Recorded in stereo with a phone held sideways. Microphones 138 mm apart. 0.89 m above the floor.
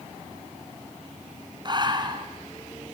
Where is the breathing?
35° right (ahead or behind), 1.9 m.